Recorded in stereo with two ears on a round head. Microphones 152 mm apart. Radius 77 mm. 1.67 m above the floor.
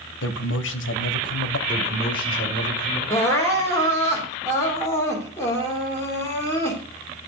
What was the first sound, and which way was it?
A man speaking, 75° left (ahead or behind).